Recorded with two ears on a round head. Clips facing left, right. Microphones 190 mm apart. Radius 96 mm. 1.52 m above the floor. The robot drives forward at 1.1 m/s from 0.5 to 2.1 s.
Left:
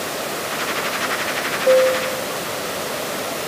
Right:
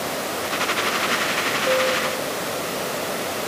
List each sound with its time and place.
1.6 s a piano: 75° left (ahead or behind), 2.5 m; by 2.3 s 65° left (ahead or behind), 2.5 m